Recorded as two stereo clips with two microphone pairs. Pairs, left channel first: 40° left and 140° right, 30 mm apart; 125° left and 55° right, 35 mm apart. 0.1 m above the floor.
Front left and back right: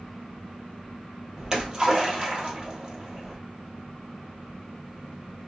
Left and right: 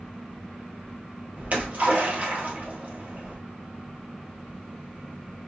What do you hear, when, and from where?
1.4 s a splash: 80° right, 1.8 m